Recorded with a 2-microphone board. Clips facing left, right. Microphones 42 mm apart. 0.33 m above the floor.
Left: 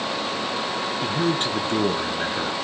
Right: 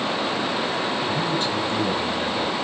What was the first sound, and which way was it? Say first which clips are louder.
A man speaking: even; 50° left (ahead or behind).